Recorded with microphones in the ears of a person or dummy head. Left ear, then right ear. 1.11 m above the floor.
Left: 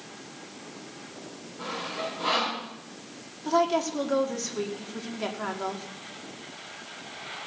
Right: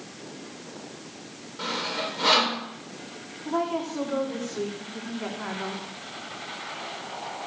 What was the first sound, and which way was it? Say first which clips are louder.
Sawing: right 4 dB; 50° right (ahead or behind).